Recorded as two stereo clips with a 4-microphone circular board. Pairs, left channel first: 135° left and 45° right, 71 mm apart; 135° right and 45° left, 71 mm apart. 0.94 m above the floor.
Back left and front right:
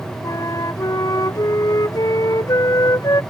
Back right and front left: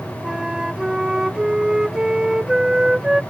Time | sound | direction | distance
0.2 | a flute | 130° left | ?